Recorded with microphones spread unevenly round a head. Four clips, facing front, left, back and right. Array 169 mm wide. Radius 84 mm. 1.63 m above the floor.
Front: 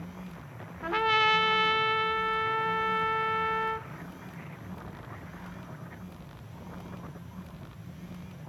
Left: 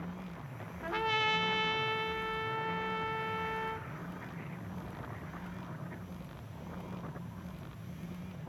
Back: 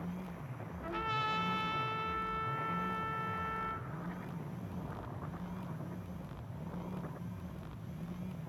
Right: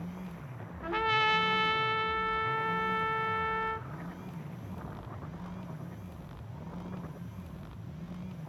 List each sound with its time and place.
0.8 s a trumpet: straight ahead, 1.3 m